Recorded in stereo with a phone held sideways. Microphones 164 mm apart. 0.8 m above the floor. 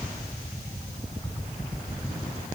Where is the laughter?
No laughter in this recording.